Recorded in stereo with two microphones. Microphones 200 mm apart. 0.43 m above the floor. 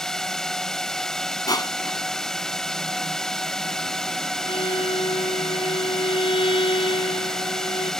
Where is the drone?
5° left (ahead or behind).